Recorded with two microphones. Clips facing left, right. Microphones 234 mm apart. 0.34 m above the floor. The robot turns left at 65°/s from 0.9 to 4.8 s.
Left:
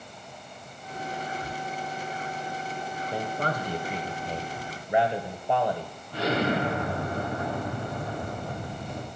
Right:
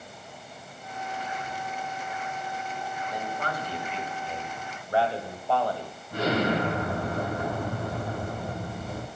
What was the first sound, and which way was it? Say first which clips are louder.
Whispering: left 1 dB; 45° left (ahead or behind).